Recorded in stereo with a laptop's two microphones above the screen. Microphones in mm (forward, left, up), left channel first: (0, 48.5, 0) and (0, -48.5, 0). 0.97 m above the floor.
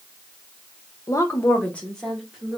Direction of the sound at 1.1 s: 40° left (ahead or behind).